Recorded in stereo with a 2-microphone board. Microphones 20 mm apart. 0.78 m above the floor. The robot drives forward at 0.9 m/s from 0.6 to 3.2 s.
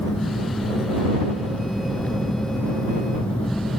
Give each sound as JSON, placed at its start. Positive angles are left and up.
{"t": 0.0, "sound": "an engine running", "side_deg": 60}